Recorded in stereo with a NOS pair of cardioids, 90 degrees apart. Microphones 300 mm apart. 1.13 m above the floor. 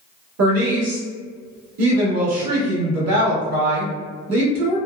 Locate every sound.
0.4 s a woman speaking: 60° right, 1.7 m